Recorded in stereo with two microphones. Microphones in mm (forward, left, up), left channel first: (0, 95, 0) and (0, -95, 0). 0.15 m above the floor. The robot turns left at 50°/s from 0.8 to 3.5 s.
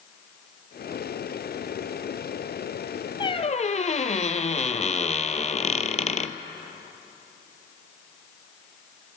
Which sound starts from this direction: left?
A squeak, at 3.2 s.